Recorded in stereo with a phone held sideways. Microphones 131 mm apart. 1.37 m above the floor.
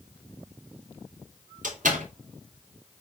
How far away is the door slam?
About 3 m.